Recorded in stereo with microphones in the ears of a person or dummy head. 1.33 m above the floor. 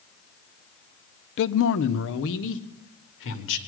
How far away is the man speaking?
About 0.7 m.